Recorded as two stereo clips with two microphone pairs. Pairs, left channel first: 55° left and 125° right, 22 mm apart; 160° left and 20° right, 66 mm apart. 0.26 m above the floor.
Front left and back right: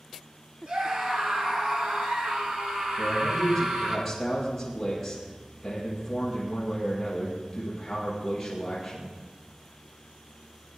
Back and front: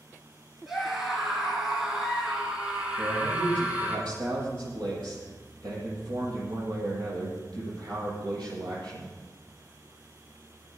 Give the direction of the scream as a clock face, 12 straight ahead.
4 o'clock.